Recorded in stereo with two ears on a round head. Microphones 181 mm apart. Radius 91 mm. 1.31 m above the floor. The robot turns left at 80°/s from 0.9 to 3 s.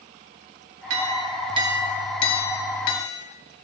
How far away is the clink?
About 1.0 m.